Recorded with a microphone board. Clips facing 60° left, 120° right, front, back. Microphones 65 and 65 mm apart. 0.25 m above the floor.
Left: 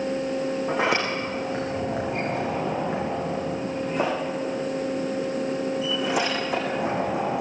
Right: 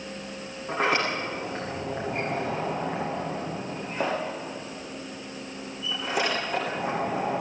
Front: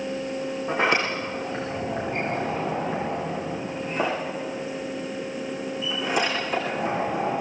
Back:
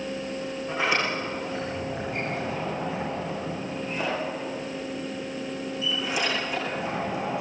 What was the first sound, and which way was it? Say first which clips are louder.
A sliding door: right 1 dB, front 3 dB; 45° left.